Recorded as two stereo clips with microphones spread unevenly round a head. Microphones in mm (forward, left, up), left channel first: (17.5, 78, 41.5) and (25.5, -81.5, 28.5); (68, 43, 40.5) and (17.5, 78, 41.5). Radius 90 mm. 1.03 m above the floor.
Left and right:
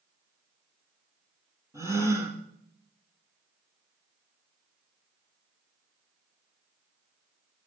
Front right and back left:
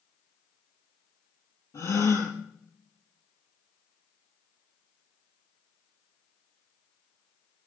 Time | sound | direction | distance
1.7 | a gasp | 15° right | 8 m